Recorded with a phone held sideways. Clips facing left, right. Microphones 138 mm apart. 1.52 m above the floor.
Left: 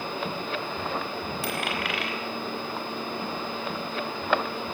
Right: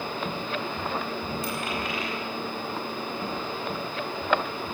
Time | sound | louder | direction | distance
1.4 | a dropped coin | left 1 dB | 75° left (ahead or behind) | 4.5 m